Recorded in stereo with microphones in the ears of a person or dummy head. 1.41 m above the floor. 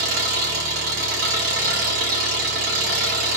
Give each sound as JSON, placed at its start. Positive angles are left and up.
{"t": 0.0, "sound": "an engine running", "side_deg": -50, "distance_m": 0.9}